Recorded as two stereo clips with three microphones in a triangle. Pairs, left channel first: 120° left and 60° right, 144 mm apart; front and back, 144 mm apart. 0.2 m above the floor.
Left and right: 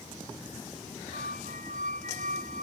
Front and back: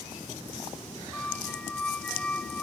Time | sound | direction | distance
1.1 | a squeak | 80° right | ?